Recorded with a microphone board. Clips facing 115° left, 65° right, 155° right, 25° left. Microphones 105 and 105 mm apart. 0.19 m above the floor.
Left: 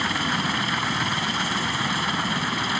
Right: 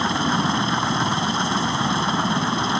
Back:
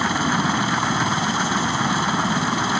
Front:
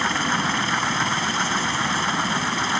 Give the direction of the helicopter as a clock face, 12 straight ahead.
3 o'clock.